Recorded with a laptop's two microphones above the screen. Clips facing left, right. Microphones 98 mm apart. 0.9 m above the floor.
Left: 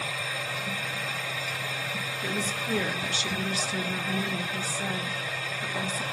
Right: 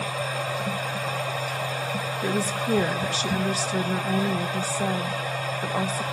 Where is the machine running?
45° right (ahead or behind), 0.8 m.